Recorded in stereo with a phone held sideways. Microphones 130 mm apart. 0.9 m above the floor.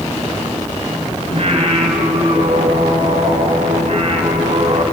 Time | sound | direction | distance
1.3 | singing | 50° right (ahead or behind) | 3 m